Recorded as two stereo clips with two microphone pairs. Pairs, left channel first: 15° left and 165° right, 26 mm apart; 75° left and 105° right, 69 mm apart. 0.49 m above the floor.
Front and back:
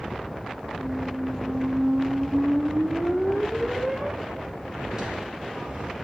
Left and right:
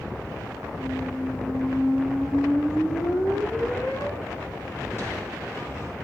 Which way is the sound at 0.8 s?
125° left.